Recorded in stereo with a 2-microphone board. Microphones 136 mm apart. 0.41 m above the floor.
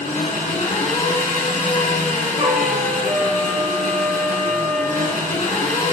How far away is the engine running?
About 2.5 m.